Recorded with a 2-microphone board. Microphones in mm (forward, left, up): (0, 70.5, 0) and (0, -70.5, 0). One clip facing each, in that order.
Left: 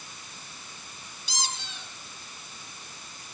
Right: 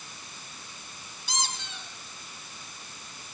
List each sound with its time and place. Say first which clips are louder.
1.3 s a squeak: right 2 dB; 55° right (ahead or behind), 4.5 m